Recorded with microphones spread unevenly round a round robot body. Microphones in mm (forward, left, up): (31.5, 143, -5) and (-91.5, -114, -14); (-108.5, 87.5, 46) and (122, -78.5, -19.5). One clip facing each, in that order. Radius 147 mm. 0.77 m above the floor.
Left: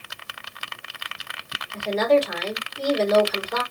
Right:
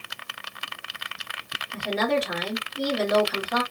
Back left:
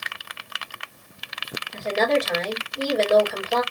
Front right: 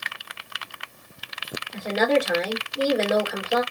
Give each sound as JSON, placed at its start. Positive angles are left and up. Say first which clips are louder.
{"t": 1.7, "sound": "a woman speaking", "louder": "left 5 dB, front right 1 dB", "azimuth_deg": -110, "distance_m": 1.8}